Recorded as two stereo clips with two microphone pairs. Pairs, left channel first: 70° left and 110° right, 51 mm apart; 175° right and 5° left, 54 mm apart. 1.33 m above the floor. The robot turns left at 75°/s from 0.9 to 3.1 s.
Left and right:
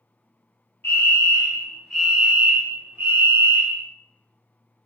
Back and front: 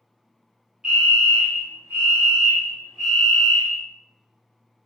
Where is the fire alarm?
75° left, 1.4 m; by 3.9 s 90° right, 1.4 m.